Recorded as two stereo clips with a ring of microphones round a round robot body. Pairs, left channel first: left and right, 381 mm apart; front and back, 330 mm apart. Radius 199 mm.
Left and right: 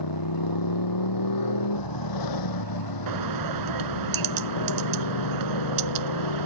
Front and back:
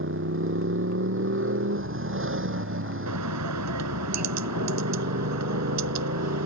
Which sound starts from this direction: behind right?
A bird, at 3.1 s.